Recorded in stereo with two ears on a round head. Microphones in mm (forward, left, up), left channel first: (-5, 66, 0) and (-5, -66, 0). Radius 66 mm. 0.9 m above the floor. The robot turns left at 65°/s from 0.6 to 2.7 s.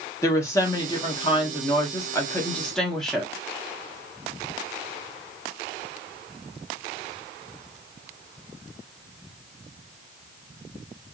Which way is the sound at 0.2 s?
140° left.